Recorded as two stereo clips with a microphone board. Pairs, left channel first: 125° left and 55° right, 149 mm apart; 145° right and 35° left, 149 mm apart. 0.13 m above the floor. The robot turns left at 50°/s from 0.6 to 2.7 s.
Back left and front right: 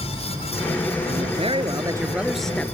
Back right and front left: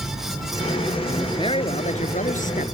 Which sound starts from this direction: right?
A man speaking, at 1.1 s.